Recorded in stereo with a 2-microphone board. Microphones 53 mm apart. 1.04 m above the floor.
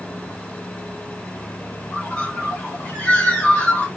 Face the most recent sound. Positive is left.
turn(degrees=25)  # may be behind; listen again after turning